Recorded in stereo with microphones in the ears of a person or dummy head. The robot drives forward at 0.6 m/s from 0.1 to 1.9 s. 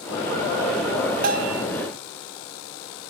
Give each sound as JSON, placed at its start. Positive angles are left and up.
{"t": 1.2, "sound": "a bell", "side_deg": -50, "distance_m": 1.2}